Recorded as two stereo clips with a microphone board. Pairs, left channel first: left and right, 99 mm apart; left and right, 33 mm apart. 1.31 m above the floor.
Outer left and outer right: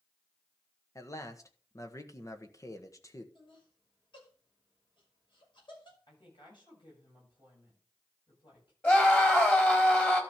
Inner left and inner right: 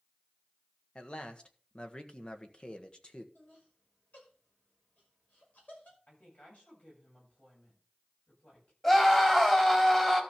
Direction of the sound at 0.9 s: 30° left (ahead or behind).